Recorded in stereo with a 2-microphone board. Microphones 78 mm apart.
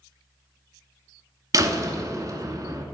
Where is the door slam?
45° right (ahead or behind), 1.0 m.